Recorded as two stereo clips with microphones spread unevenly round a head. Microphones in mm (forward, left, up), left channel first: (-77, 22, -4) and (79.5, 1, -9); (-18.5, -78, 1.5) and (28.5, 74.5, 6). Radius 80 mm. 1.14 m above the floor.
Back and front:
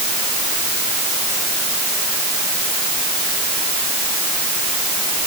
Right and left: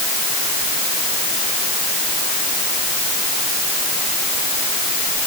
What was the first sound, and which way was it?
Only background noise.